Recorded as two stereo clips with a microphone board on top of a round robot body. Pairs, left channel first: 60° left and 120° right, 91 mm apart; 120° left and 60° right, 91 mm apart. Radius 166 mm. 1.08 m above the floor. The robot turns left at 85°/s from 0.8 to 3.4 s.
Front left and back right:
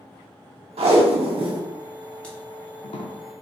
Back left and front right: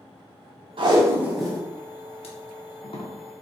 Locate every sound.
0.8 s tape being pulled: 95° right, 0.5 m; by 3.1 s 65° left, 0.5 m